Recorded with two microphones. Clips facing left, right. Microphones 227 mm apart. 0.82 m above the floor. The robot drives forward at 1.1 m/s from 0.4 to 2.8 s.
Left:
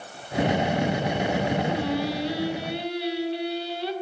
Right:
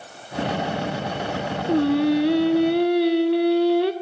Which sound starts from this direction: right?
Singing, at 1.7 s.